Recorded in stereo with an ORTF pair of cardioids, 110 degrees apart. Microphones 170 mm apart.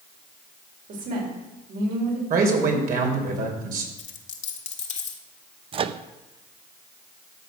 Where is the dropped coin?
45° left, 1.6 m.